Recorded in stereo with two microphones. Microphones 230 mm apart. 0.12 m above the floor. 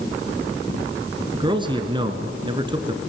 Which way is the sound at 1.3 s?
20° right (ahead or behind).